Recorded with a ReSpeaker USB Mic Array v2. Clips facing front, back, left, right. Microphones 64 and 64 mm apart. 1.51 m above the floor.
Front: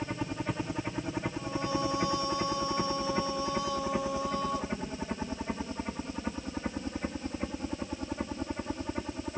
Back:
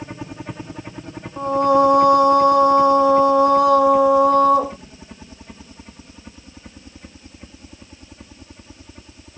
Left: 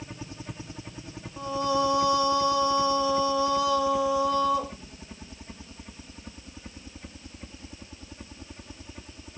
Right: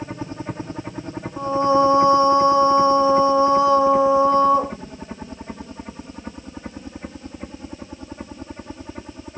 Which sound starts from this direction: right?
A helicopter, at 0.0 s.